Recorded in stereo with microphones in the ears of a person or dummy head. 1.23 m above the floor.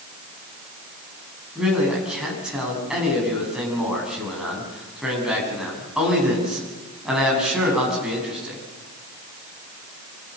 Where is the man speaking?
5° right (ahead or behind), 9.5 m.